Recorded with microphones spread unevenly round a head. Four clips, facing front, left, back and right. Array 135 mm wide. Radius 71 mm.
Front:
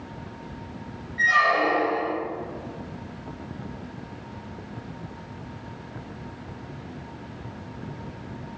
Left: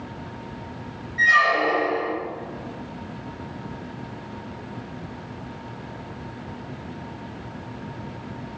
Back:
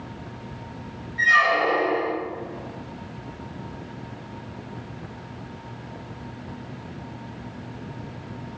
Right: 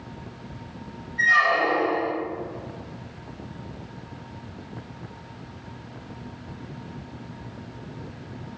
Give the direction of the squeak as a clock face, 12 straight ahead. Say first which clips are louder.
Left 2 dB, back 1 dB; 9 o'clock.